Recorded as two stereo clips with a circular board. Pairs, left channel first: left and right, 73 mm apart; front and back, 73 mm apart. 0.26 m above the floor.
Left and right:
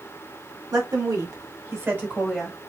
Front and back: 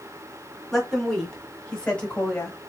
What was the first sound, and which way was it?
A woman speaking, 85° right.